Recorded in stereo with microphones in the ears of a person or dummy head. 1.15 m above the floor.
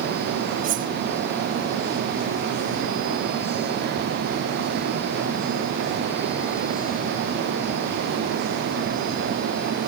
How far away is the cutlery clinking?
About 0.7 m.